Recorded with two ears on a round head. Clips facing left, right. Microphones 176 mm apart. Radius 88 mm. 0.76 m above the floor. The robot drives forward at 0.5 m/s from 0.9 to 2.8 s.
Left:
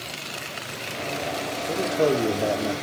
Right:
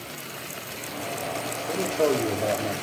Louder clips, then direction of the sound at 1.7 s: Left 1 dB; 5° left (ahead or behind).